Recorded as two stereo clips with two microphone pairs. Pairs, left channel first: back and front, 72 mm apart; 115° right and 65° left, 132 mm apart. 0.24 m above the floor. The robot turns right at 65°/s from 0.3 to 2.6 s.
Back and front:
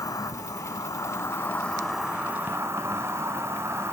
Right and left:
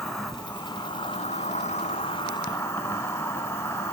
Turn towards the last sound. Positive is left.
turn(degrees=-55)